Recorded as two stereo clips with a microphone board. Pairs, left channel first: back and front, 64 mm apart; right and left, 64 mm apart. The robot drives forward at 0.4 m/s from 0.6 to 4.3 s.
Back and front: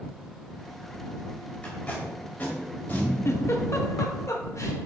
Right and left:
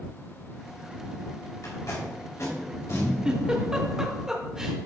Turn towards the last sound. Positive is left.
turn(degrees=165)